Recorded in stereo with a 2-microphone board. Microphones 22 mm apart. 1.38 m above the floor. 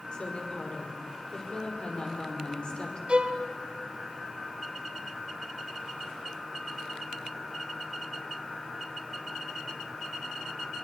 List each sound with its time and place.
0.1 s a woman speaking: 45° left (ahead or behind), 5.5 m
3.1 s a violin: 55° right (ahead or behind), 2.5 m